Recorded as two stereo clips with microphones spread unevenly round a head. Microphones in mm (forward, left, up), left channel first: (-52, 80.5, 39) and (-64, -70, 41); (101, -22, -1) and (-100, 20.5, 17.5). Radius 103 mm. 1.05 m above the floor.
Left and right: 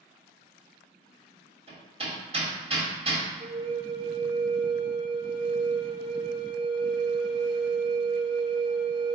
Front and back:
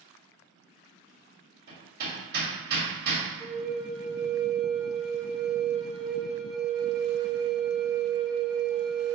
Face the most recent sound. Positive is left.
turn(degrees=-110)